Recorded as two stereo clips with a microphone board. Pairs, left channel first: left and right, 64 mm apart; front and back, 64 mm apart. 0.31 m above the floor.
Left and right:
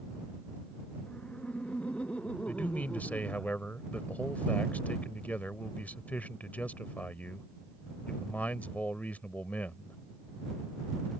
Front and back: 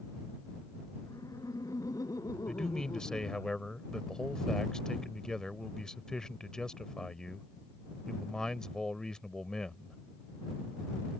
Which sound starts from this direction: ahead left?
A man speaking, at 2.5 s.